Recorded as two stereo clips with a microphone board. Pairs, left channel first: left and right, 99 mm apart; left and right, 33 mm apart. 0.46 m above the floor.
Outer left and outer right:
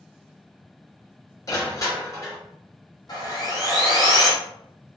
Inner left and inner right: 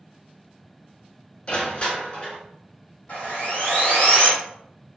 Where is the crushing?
35° left (ahead or behind), 1.4 m.